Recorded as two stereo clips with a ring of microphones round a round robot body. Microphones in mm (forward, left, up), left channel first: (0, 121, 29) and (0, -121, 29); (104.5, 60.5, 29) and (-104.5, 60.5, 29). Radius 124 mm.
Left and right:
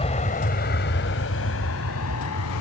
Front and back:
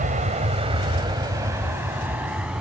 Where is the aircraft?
145° left; by 2.6 s 95° left.